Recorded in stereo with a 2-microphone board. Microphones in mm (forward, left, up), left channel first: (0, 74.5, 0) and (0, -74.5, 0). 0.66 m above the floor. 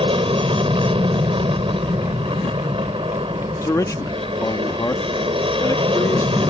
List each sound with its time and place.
0.0 s an aircraft: 40° right (ahead or behind)
3.6 s a man speaking: 20° left (ahead or behind)